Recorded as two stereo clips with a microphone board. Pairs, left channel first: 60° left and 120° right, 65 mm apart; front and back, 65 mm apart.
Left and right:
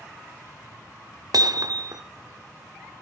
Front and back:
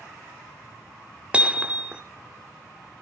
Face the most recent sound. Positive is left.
turn(degrees=-105)